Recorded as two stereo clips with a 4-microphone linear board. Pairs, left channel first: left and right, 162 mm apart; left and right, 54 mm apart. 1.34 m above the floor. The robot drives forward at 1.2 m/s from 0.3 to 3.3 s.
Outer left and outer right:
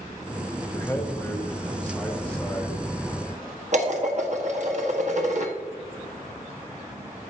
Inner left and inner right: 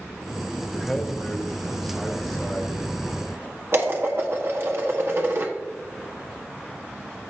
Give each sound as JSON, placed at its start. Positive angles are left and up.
{"t": 0.7, "sound": "a man speaking", "side_deg": 20, "distance_m": 1.0}
{"t": 3.7, "sound": "dishes clattering", "side_deg": -50, "distance_m": 1.4}